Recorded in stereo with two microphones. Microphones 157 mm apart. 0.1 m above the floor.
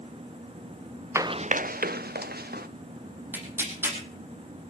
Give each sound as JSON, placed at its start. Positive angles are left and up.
{"t": 1.1, "sound": "running footsteps", "side_deg": -15, "distance_m": 0.6}
{"t": 3.3, "sound": "tearing paper", "side_deg": -15, "distance_m": 4.5}